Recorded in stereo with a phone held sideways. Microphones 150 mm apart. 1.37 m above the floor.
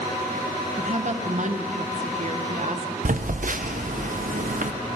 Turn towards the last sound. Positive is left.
turn(degrees=-60)  # may be behind; listen again after turning